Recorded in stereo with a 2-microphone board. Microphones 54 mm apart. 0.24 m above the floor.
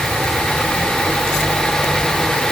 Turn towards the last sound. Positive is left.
No sound to turn to.